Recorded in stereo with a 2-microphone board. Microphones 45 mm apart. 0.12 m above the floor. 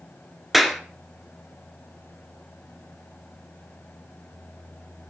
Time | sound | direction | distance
0.5 | a clap | 5° right (ahead or behind) | 1.4 m